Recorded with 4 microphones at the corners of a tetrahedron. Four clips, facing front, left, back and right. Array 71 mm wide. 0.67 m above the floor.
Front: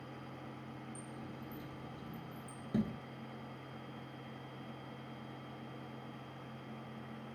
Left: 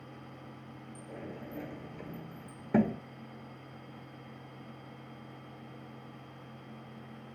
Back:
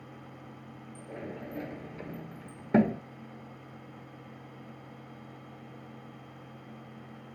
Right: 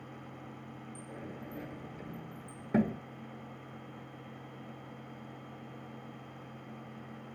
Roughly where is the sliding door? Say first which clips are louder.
Left 3 dB, back 7 dB; behind.